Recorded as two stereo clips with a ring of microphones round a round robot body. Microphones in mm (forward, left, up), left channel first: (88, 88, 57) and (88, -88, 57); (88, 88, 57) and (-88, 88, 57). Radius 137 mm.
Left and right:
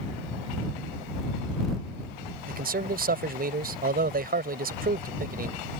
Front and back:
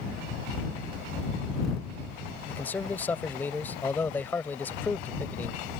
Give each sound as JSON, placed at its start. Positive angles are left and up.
{"t": 2.5, "sound": "a man speaking", "azimuth_deg": -80}